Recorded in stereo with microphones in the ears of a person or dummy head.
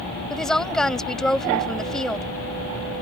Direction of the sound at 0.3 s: 5° left (ahead or behind).